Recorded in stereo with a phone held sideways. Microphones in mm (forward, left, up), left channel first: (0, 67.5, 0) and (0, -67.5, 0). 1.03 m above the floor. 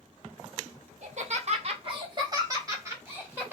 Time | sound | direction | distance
1.0 | laughter | 55° right (ahead or behind) | 1.0 m